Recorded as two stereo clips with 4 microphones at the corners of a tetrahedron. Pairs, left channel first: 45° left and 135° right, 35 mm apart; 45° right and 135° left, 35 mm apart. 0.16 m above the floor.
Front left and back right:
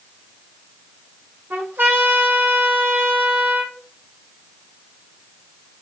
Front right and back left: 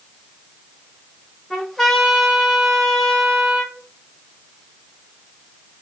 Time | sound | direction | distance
1.5 | a trumpet | 130° right | 5 m